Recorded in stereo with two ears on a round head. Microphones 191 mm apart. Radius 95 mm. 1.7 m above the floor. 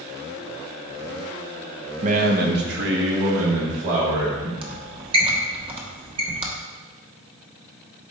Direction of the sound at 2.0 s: 35° right (ahead or behind).